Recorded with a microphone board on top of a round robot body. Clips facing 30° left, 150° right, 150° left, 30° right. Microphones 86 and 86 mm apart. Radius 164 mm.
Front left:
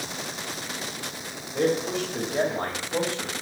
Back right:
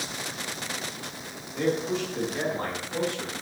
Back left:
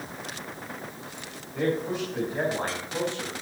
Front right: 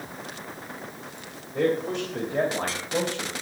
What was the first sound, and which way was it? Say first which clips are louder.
A man speaking: front left 2 dB, front right 3 dB; 5° right.